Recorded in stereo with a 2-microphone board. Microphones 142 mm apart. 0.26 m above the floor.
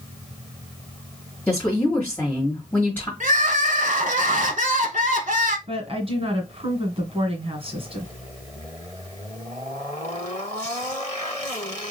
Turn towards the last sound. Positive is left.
turn(degrees=-50)  # may be behind; listen again after turning